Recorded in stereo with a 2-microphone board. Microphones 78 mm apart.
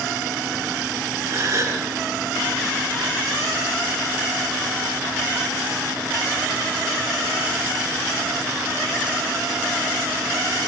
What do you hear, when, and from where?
1.2 s a gasp: 40° right (ahead or behind), 5 m